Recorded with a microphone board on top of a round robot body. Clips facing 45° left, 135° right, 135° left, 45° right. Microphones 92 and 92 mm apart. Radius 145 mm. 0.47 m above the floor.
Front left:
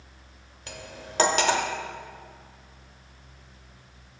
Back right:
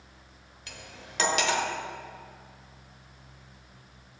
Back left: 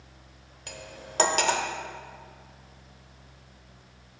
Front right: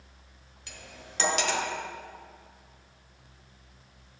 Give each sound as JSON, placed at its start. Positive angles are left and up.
{"t": 0.7, "sound": "cutlery clinking", "azimuth_deg": 95, "distance_m": 0.9}